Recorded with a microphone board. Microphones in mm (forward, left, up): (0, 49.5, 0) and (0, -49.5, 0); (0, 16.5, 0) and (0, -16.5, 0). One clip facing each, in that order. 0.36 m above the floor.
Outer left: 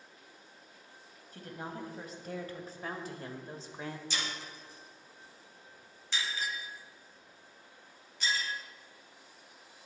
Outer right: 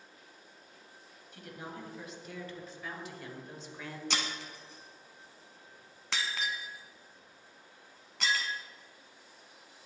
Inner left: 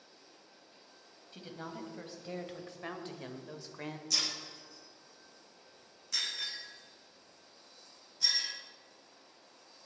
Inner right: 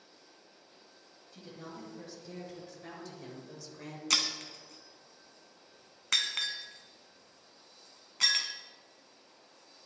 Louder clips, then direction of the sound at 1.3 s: Outer left 2 dB, inner left 2 dB; 40° left (ahead or behind).